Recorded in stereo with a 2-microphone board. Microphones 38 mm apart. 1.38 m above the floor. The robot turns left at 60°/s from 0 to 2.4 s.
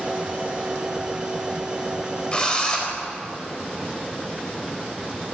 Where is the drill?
25° left (ahead or behind), 4 m; by 2.9 s 20° left (ahead or behind), 4 m.